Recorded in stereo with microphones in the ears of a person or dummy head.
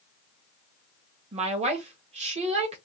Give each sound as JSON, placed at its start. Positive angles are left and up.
{"t": 1.3, "sound": "a woman speaking", "side_deg": -30, "distance_m": 1.0}